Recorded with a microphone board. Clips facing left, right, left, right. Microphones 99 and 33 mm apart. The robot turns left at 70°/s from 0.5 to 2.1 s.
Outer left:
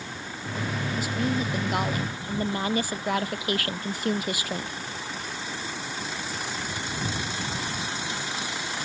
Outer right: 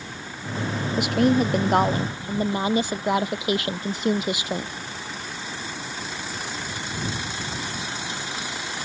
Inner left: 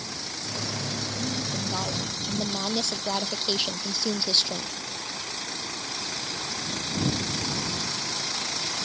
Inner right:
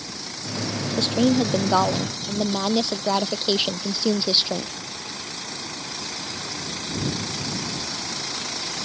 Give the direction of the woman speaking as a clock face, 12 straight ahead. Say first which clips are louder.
Outer right 9 dB, inner right 11 dB; 3 o'clock.